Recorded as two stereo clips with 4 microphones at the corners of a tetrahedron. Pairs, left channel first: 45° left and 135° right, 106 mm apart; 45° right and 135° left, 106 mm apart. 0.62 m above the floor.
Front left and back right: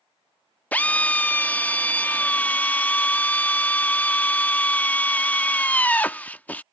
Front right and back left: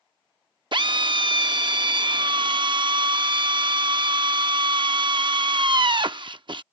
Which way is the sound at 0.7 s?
115° left.